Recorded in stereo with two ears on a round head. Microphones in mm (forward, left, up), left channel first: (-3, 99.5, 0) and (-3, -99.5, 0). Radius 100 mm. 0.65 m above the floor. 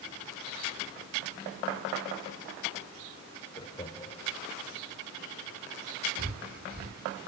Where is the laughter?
20° left (ahead or behind), 2.5 m.